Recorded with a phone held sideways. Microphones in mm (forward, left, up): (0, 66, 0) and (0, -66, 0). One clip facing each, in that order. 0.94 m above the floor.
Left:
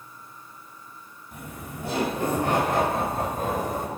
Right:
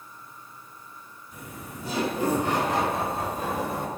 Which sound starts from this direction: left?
Laughter, at 1.3 s.